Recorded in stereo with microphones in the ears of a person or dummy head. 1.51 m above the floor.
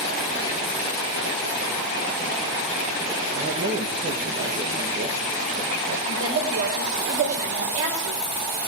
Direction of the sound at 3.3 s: 40° right (ahead or behind).